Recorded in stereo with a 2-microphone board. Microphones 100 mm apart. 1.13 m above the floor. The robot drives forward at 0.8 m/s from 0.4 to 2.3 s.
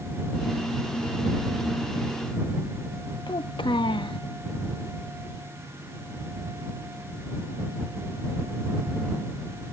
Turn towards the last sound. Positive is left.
turn(degrees=55)  # may be behind; listen again after turning